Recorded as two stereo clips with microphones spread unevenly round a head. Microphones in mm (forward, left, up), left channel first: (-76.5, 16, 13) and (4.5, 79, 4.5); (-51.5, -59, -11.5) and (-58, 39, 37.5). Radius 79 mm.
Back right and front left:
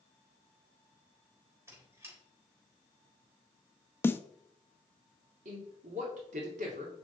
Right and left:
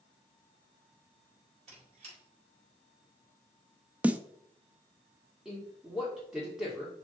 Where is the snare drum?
155° left, 0.6 m.